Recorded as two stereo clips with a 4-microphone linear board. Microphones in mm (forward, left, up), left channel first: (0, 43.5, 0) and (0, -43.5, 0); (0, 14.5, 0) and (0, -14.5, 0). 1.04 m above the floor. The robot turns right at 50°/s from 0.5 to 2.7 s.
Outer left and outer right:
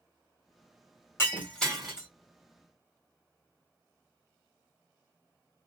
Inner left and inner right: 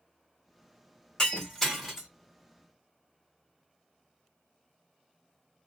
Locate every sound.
1.2 s breaking glass: 30° left (ahead or behind), 1.6 m; by 2.1 s 10° right (ahead or behind), 1.6 m